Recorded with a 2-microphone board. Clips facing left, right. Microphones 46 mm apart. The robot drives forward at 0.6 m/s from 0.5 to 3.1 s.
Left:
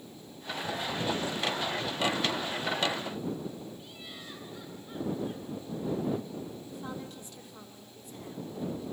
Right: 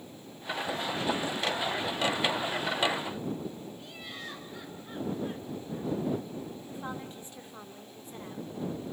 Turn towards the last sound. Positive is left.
turn(degrees=-30)  # may be behind; listen again after turning